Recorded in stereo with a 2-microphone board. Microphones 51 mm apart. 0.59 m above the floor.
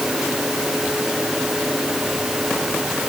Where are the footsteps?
I don't hear footsteps.